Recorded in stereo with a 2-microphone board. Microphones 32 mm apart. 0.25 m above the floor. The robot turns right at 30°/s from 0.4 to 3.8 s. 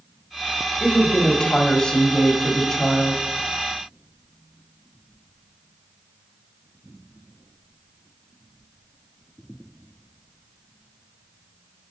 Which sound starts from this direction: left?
A woman speaking, at 0.8 s.